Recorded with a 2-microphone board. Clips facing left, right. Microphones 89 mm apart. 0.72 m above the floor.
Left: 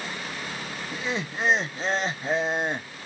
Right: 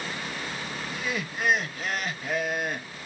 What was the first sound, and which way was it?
Laughter, 25° left (ahead or behind).